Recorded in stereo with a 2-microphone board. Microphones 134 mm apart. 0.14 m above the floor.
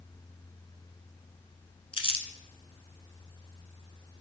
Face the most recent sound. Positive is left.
turn(degrees=45)  # may be behind; listen again after turning